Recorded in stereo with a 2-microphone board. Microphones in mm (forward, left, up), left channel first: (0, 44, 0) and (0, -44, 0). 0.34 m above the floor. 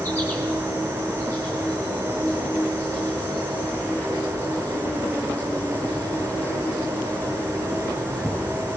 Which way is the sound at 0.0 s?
20° left (ahead or behind).